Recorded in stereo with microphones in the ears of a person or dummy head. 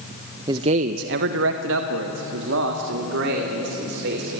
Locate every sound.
0.5 s a man speaking: 20° right (ahead or behind), 0.9 m; by 4.4 s 60° right (ahead or behind), 4.5 m